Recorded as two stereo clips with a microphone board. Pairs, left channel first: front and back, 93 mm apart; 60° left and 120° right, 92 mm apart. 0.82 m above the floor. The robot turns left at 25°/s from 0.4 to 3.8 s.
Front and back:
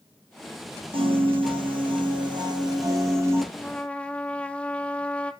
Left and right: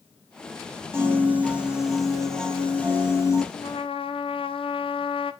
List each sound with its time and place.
0.9 s a piano: straight behind, 3 m; by 3.4 s 120° left, 3 m
3.5 s a trumpet: 85° left, 0.7 m; by 5.3 s 75° left, 0.7 m